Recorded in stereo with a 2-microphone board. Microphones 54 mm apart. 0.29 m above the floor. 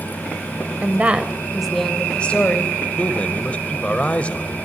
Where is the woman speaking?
30° right (ahead or behind), 1.2 m; by 2.8 s 35° left (ahead or behind), 1.3 m.